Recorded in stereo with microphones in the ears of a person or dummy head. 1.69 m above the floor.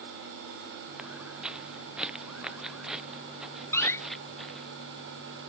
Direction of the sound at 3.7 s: 15° left (ahead or behind).